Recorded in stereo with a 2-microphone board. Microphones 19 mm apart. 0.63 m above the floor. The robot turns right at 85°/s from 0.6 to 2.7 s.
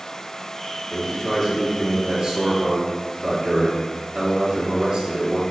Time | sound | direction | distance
0.9 | a man speaking | 130° left | 1.1 m